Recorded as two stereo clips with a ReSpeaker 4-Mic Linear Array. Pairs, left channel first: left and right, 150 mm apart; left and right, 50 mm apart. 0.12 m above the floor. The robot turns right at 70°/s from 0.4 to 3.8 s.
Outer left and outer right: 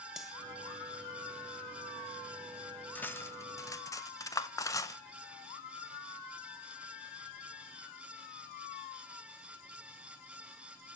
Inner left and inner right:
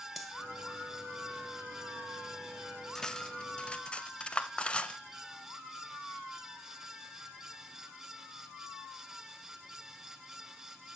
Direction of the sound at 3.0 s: 10° left (ahead or behind).